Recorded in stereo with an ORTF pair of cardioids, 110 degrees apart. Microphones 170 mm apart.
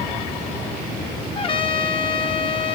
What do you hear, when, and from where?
1.4 s a trumpet: 30° left, 0.7 m